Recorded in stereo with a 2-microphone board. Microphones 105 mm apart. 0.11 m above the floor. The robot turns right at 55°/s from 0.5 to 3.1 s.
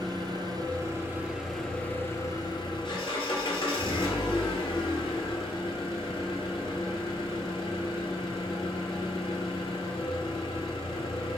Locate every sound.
0.0 s an engine running: 55° right, 0.9 m; by 11.4 s 85° left, 0.9 m